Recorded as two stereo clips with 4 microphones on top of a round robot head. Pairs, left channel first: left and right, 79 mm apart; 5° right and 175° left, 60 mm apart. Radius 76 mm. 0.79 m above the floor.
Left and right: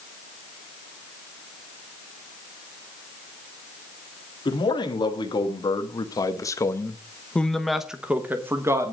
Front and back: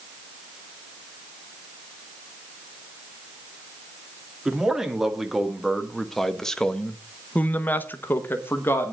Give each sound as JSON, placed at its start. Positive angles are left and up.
{"t": 4.5, "sound": "a man speaking", "azimuth_deg": 95, "distance_m": 2.0}